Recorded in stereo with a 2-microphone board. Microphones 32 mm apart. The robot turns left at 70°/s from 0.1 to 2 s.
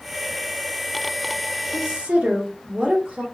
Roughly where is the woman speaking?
Right.